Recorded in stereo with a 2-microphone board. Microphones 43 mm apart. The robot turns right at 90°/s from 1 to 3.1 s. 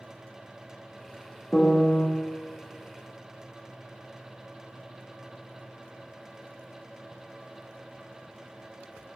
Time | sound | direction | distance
1.5 | a piano | 15° left | 0.7 m